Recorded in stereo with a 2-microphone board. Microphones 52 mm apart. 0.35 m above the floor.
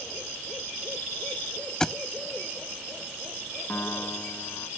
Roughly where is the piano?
Left.